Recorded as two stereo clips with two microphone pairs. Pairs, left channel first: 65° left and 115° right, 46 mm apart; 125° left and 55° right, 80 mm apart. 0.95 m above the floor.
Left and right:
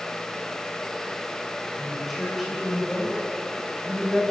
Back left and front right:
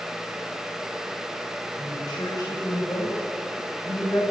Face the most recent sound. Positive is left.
turn(degrees=175)